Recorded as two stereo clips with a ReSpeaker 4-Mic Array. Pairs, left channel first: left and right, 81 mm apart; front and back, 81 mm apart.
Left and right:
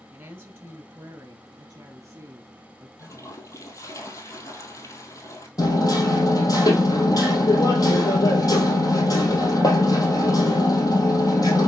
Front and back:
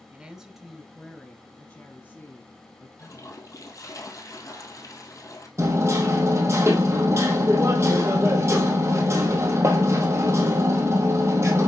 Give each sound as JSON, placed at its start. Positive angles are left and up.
{"t": 0.1, "sound": "a woman speaking", "azimuth_deg": -125, "distance_m": 1.1}
{"t": 3.0, "sound": "a toilet flushing", "azimuth_deg": 45, "distance_m": 1.5}
{"t": 5.6, "sound": "hammering", "azimuth_deg": 125, "distance_m": 2.0}